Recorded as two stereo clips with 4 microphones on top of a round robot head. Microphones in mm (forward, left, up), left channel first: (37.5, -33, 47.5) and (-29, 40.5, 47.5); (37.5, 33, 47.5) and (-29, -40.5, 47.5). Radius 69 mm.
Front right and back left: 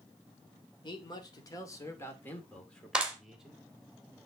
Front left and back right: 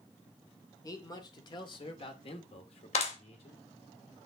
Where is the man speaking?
5° right, 3 m; by 3.6 s 50° left, 2.5 m.